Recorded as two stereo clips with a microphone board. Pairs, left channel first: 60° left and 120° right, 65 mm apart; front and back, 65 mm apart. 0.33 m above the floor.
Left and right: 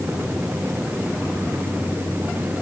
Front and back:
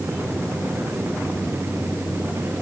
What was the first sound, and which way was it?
Only background noise.